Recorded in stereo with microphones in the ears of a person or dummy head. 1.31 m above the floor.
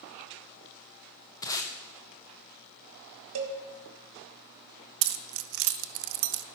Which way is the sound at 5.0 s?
65° right (ahead or behind).